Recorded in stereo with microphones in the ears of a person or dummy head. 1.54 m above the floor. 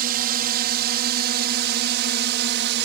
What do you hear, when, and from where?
0.0 s a drone: 50° right (ahead or behind); by 2.9 s 60° right (ahead or behind)